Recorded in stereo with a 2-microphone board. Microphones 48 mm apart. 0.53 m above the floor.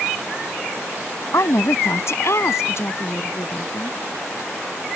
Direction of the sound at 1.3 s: 65° left (ahead or behind).